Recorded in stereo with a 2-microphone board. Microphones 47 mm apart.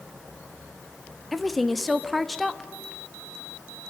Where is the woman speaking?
5° left (ahead or behind), 1.1 m.